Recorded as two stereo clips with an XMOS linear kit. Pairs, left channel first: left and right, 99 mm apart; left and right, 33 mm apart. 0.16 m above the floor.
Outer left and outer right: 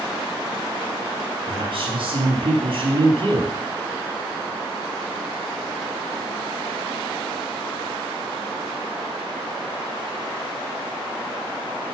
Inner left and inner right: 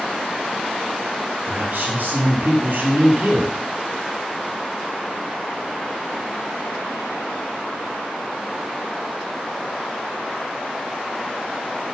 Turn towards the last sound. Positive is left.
turn(degrees=-60)  # may be behind; listen again after turning